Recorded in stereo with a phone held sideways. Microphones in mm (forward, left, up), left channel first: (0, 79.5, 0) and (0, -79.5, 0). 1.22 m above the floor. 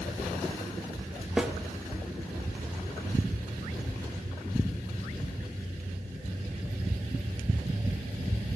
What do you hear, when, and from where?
1.4 s a snare drum: 5° right (ahead or behind), 3.5 m